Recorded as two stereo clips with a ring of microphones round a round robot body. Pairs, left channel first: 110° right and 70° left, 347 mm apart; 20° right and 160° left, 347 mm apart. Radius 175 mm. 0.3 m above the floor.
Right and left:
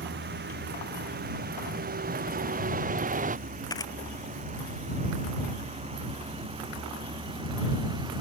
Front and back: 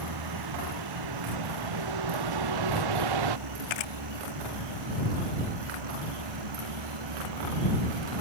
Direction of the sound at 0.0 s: 130° left.